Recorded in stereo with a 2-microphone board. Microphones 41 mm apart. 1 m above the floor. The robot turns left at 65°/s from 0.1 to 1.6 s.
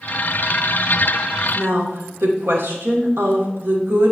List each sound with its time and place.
1.6 s a woman speaking: 85° right, 2.5 m